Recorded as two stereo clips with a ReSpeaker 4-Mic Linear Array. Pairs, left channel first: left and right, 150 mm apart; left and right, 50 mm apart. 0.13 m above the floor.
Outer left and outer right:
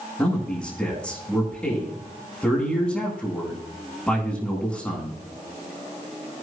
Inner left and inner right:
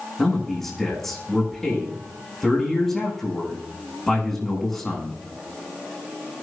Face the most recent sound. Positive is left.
turn(degrees=5)  # may be behind; listen again after turning